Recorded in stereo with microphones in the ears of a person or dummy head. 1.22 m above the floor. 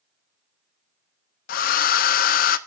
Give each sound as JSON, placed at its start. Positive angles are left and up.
{"t": 1.5, "sound": "a hair dryer", "side_deg": 50, "distance_m": 0.7}